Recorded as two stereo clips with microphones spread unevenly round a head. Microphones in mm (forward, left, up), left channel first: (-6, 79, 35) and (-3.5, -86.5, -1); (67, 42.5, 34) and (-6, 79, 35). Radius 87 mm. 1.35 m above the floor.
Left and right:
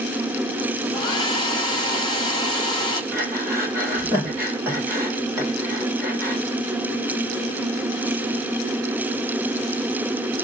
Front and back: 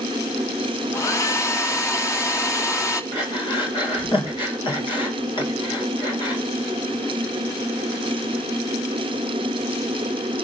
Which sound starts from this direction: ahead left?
A hair dryer, at 0.9 s.